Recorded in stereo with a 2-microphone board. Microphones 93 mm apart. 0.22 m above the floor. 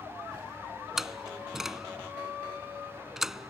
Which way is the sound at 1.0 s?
5° right (ahead or behind).